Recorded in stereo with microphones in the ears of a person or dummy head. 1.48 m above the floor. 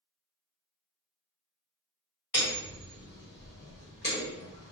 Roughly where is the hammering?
Centre.